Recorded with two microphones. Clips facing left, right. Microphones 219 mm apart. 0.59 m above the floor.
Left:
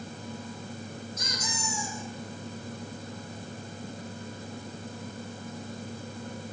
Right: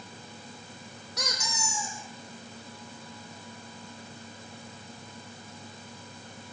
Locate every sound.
1.2 s a squeak: 75° right (ahead or behind), 6 m